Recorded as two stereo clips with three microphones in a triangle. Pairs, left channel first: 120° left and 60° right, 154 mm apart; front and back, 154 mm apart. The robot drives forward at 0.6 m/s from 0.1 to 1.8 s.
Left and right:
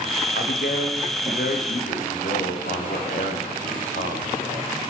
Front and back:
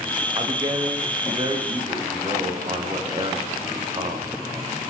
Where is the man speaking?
120° left, 9 m; by 4.4 s 125° left, 9.5 m.